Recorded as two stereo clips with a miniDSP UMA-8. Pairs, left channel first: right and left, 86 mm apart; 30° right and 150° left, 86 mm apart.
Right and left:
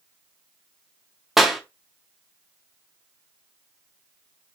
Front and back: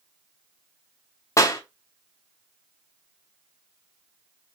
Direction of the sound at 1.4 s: 5° left.